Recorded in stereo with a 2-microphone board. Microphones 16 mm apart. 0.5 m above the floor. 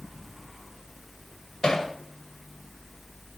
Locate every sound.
1.6 s hammering: 60° left (ahead or behind), 2 m